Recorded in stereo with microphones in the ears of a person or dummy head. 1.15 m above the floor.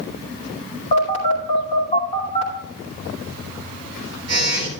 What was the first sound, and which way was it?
A phone buzzing, 35° left (ahead or behind).